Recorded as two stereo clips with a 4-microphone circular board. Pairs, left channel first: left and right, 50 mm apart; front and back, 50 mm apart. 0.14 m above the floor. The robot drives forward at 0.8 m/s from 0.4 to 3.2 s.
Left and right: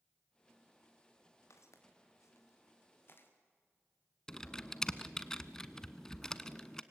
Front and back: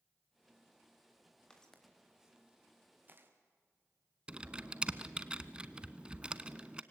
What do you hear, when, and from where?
1.5 s footsteps: 75° left, 4 m; by 3.3 s 135° left, 4.5 m
4.3 s typing on a keyboard: 145° left, 0.8 m